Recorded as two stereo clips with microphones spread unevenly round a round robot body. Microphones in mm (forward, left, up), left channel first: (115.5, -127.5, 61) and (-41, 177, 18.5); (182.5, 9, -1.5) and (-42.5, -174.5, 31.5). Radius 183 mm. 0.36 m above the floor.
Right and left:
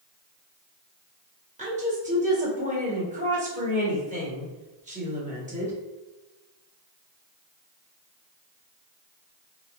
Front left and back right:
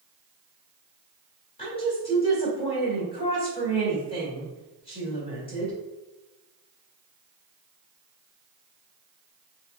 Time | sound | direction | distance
1.6 | a woman speaking | 80° left | 1.6 m